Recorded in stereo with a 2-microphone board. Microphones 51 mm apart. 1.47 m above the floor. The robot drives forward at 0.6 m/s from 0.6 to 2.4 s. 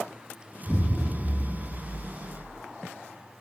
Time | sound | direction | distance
0.7 | an explosion | 15° left (ahead or behind) | 0.7 m